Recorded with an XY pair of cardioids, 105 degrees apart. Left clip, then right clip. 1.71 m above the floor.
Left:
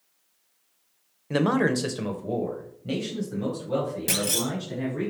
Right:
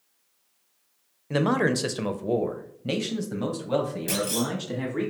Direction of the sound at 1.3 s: 5° left.